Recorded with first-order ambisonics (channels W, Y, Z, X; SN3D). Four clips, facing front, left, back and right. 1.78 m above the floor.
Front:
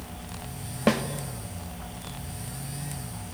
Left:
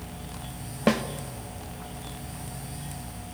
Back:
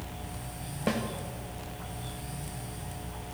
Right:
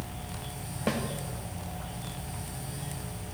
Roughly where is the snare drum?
Ahead left.